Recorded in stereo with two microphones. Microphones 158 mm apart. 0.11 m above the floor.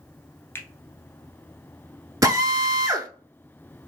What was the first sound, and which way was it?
A finger snap, 15° left (ahead or behind).